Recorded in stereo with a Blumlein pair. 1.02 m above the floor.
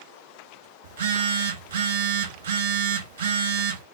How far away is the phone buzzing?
About 1.4 m.